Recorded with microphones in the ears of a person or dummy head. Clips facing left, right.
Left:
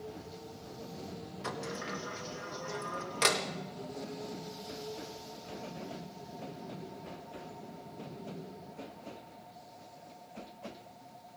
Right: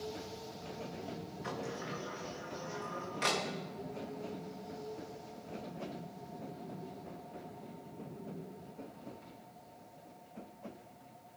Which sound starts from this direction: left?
A sliding door, at 1.4 s.